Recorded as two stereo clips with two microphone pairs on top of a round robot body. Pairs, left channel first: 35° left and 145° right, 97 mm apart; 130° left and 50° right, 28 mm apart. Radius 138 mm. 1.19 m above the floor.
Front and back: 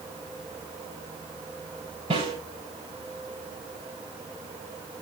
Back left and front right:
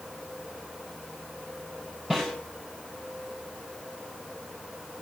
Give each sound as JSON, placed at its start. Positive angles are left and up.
{"t": 2.1, "sound": "a snare drum", "azimuth_deg": -115, "distance_m": 7.0}